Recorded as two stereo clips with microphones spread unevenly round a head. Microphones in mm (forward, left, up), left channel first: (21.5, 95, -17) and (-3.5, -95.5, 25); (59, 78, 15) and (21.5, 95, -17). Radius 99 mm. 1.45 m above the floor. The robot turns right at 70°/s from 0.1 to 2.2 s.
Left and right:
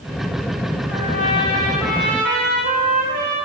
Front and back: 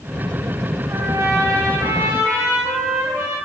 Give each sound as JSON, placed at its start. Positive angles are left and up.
{"t": 0.9, "sound": "a trumpet", "azimuth_deg": 120, "distance_m": 1.7}